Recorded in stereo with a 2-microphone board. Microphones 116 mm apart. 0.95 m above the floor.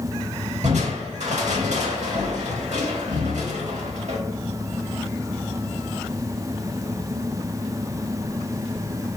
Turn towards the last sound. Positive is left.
turn(degrees=-80)